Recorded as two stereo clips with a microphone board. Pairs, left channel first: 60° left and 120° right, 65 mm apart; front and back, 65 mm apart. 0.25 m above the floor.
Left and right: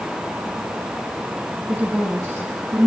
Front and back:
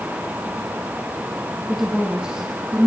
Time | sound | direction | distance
1.7 | a woman speaking | 90° right | 1.5 m